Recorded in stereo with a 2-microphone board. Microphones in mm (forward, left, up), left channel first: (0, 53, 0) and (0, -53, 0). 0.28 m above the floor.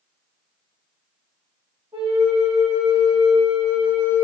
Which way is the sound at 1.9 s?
55° right (ahead or behind).